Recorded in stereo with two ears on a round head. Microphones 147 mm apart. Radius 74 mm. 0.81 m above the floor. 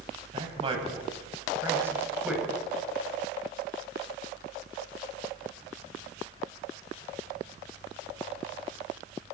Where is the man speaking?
35° right (ahead or behind), 5.5 m; by 2.5 s 5° right (ahead or behind), 5 m.